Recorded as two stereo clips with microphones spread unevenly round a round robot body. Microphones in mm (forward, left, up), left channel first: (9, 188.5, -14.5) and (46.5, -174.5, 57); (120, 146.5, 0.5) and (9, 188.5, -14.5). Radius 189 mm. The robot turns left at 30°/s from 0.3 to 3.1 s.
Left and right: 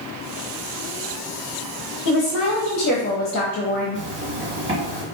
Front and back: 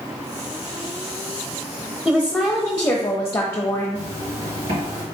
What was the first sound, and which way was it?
A woman speaking, 70° left.